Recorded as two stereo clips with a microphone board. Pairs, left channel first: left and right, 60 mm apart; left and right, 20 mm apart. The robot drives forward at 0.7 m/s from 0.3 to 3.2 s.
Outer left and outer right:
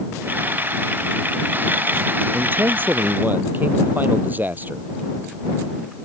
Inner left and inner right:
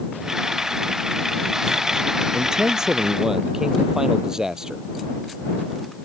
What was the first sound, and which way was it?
A man speaking, 35° right (ahead or behind).